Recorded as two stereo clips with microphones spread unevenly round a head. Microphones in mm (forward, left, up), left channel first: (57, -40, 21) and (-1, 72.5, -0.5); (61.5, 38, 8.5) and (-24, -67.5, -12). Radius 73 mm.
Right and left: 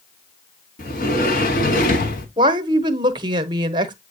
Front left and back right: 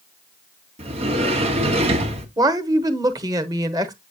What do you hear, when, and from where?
0.8 s a sliding door: 85° right, 1.8 m
2.4 s a woman speaking: 170° left, 1.0 m